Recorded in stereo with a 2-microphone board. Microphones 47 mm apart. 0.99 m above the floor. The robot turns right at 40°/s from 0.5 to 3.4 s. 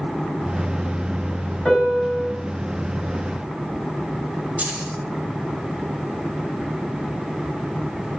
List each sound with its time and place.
1.6 s a piano: 15° left (ahead or behind), 5 m; by 2.3 s 15° right (ahead or behind), 5 m
4.6 s keys jangling: 35° right (ahead or behind), 2.5 m